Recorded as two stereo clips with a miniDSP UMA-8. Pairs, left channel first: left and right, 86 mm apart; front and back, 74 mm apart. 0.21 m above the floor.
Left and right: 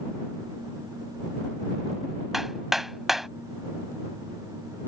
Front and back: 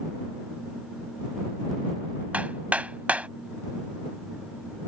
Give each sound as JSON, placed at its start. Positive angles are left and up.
{"t": 2.3, "sound": "hammering", "azimuth_deg": -170}